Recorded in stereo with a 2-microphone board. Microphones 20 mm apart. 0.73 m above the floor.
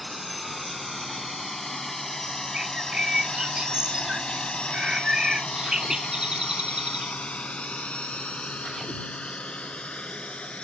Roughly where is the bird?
Right.